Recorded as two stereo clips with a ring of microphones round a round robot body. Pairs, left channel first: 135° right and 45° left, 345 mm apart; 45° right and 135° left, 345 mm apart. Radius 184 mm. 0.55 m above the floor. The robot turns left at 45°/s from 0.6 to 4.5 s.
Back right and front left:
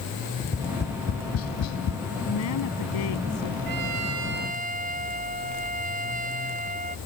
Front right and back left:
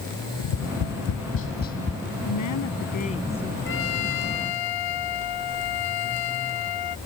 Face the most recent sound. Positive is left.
turn(degrees=-25)